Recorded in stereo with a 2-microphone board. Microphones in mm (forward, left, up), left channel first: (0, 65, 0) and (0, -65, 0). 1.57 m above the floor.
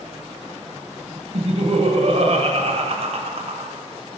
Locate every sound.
1.3 s laughter: 55° right (ahead or behind), 0.9 m